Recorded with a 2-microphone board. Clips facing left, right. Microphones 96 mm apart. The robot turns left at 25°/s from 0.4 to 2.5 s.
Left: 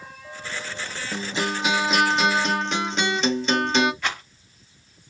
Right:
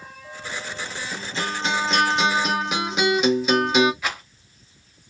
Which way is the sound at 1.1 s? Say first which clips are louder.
Left 3 dB; 25° left.